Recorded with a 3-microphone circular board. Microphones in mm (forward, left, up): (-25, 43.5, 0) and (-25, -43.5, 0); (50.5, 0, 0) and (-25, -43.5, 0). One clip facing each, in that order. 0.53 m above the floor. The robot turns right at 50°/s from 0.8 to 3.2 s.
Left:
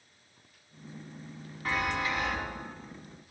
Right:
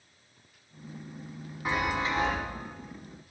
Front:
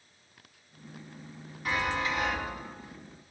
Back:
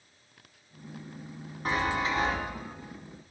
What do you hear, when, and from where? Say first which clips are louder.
1.6 s a chime: right 2 dB, back 2 dB; 155° right, 1.3 m; by 2.4 s 120° right, 1.3 m